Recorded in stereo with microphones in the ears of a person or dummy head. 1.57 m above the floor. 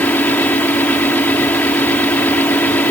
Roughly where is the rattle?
I don't hear a rattle.